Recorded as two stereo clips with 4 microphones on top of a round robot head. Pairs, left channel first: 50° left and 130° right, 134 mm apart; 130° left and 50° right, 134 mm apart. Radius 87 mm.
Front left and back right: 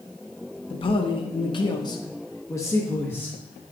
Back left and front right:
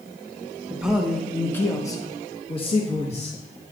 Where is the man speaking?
25° left, 1.0 m; by 3.7 s 130° left, 1.5 m.